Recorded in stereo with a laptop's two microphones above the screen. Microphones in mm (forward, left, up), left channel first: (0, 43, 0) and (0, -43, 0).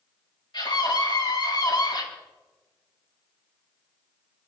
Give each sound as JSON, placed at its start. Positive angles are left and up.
{"t": 0.5, "sound": "a scream", "side_deg": 60, "distance_m": 7.0}